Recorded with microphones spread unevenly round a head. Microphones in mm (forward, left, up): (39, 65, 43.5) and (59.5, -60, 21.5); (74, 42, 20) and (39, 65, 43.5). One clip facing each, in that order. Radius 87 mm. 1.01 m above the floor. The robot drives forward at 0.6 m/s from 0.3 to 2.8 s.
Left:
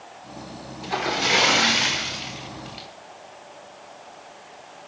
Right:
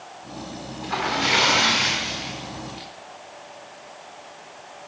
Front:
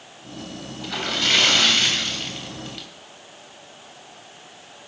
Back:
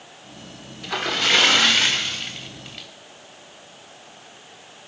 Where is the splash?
160° left, 1.4 m; by 2.9 s 170° left, 2.5 m.